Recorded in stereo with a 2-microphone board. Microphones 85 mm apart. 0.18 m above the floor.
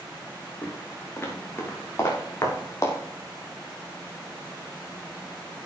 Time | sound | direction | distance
0.6 | footsteps | 25° left (ahead or behind) | 4.5 m